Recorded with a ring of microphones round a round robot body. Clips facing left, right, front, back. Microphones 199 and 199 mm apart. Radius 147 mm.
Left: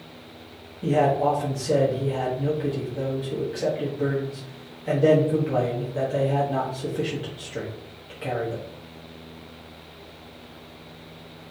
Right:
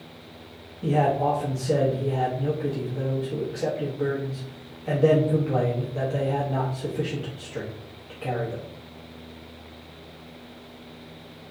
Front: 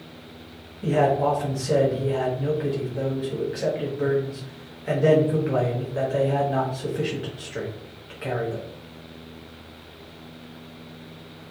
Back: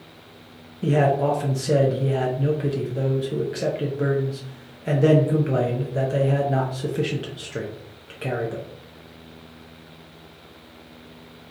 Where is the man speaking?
165° left, 0.6 m.